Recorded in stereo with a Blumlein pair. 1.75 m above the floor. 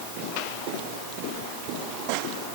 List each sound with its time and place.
Only background noise.